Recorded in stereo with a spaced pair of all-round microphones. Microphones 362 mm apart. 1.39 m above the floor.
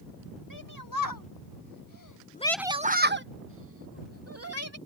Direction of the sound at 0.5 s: 60° left (ahead or behind).